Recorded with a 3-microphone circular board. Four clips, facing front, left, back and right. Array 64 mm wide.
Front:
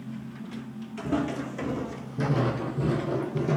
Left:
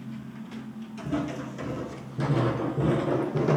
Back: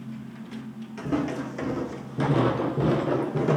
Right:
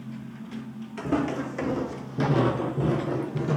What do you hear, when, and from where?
1.0 s footsteps: 100° right, 1.0 m; by 3.6 s 140° left, 0.7 m